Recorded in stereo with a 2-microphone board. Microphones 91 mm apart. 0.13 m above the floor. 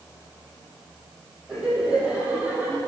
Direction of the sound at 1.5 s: 10° right (ahead or behind).